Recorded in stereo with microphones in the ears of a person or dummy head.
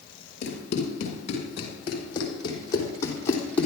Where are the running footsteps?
45° left (ahead or behind), 6 m; by 3.7 s 10° left (ahead or behind), 3.5 m.